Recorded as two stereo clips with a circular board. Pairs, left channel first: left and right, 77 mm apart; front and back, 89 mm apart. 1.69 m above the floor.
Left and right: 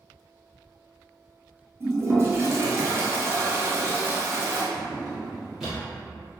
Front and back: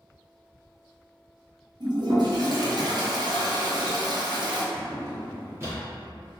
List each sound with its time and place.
1.8 s a toilet flushing: 145° right, 0.5 m
4.7 s a drawer: 175° right, 1.1 m